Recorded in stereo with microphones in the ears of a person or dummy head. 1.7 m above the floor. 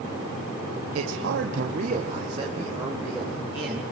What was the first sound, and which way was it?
A man speaking, 85° right.